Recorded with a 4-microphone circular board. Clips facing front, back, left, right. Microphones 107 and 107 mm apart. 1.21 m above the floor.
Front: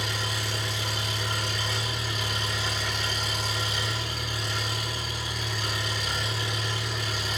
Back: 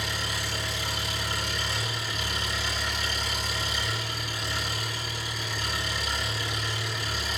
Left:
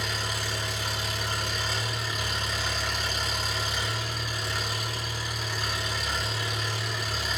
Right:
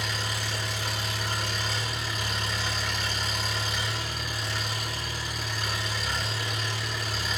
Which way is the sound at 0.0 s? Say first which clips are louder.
Front 1 dB, even; straight ahead.